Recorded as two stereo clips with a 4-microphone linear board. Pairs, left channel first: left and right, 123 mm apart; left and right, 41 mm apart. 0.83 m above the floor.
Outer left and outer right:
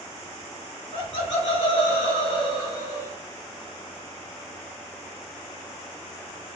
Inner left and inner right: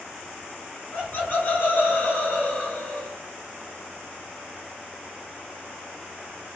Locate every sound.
0.9 s laughter: 40° left (ahead or behind), 2.5 m; by 3.2 s 25° left (ahead or behind), 1.0 m